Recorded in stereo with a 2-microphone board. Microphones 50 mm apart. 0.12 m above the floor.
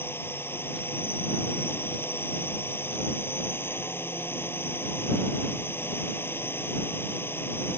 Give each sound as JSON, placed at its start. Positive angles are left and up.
{"t": 0.0, "sound": "a drone", "side_deg": 50}